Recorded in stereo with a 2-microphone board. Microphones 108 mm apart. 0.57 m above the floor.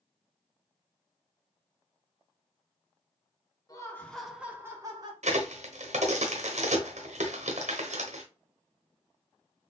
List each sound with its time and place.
3.7 s laughter: 30° left (ahead or behind), 1.0 m; by 5.1 s 40° right (ahead or behind), 1.4 m
5.2 s a crack: 85° right, 0.9 m